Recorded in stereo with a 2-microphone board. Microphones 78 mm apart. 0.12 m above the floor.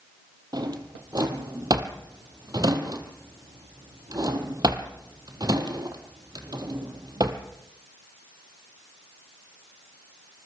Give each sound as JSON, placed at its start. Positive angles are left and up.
{"t": 0.5, "sound": "a drawer", "side_deg": -60, "distance_m": 1.9}